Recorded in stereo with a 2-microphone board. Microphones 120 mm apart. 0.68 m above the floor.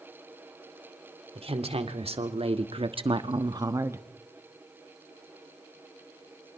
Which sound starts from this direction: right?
A woman speaking, at 1.4 s.